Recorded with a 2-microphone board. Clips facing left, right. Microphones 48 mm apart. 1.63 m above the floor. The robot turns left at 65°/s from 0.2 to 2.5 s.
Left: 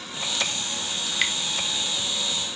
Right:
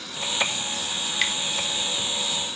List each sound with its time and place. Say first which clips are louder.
1.1 s dripping: even; 5° right (ahead or behind), 1.3 m; by 1.3 s 10° left (ahead or behind), 1.3 m